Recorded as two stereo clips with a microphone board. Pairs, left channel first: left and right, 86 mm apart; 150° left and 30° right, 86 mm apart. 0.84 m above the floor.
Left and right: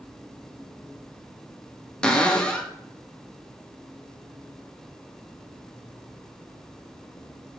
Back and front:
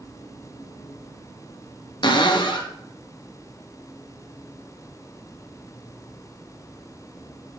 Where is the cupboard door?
170° left, 0.6 m.